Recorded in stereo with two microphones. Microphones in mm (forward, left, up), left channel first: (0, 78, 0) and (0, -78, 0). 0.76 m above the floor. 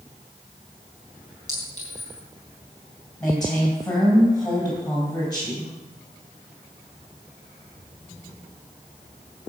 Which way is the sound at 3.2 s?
5° left (ahead or behind).